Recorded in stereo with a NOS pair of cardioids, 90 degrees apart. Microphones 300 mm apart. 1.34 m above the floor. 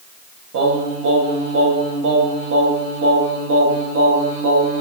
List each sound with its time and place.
0.5 s singing: 45° right, 0.8 m